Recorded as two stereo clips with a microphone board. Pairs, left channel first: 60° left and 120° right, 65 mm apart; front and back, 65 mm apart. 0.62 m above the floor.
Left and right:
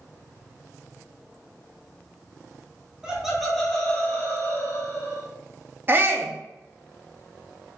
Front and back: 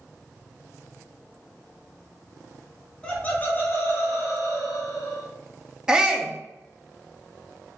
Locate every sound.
3.0 s laughter: 55° right, 1.2 m; by 5.3 s 25° left, 2.0 m
5.9 s a shout: 110° right, 0.7 m